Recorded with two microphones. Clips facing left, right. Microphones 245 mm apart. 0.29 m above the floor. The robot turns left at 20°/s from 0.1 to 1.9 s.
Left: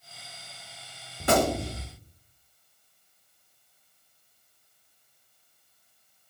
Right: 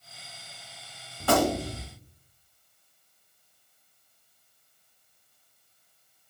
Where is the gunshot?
20° left (ahead or behind), 0.5 m; by 1.8 s 25° left (ahead or behind), 0.5 m.